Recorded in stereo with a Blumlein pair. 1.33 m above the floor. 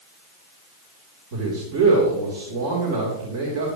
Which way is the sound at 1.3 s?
45° right.